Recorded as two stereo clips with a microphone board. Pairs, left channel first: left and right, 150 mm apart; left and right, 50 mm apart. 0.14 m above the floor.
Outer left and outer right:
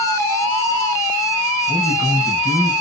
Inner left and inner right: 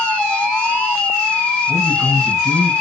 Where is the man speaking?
10° right (ahead or behind), 3 m.